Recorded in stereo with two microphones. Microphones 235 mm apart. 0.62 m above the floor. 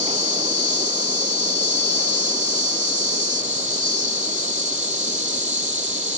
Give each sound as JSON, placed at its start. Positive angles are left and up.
{"t": 0.0, "sound": "an insect", "side_deg": -30}